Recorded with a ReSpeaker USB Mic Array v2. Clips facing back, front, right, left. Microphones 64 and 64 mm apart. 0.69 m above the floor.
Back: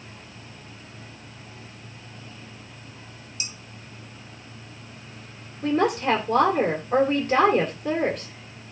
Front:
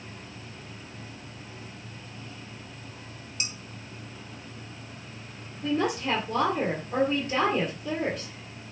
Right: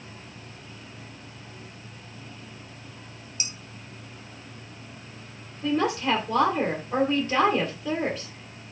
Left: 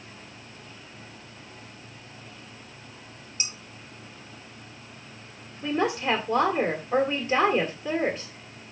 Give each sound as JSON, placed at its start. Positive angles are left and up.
{"t": 3.4, "sound": "dishes clattering", "azimuth_deg": 35, "distance_m": 2.5}
{"t": 5.6, "sound": "a woman speaking", "azimuth_deg": 165, "distance_m": 2.5}